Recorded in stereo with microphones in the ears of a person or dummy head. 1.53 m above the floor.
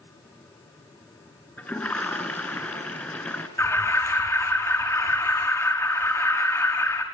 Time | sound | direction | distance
1.6 | a toilet flushing | 10° left (ahead or behind) | 3 m
3.6 | an alarm | 10° left (ahead or behind) | 4.5 m